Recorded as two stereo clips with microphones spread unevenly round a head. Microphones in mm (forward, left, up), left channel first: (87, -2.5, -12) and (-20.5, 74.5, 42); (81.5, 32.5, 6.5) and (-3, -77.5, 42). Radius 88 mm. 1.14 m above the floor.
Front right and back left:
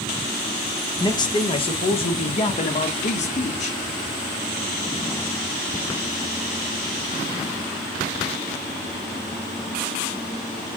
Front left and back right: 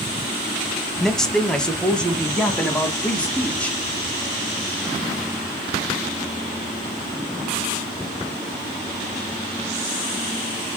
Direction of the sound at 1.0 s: 20° right.